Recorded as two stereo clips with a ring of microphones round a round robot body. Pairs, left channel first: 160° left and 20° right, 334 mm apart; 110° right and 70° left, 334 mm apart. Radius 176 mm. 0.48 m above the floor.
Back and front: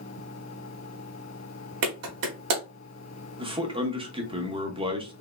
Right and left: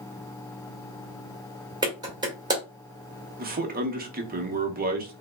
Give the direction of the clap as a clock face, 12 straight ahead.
12 o'clock.